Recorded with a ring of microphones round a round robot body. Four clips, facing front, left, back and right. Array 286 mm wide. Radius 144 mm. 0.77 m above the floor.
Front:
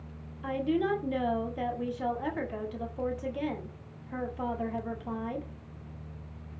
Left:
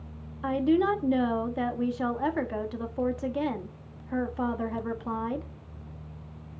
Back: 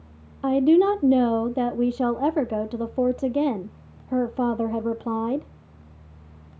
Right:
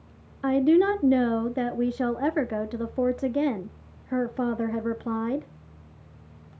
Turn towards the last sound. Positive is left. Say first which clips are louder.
# right 4 dB, back 11 dB
turn(degrees=-155)